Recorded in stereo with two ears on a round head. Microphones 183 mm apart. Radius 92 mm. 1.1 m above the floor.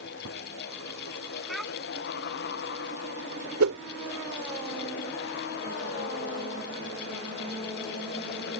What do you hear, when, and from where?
1.5 s a child speaking: centre (ahead or behind)
3.6 s a whoosh: 85° right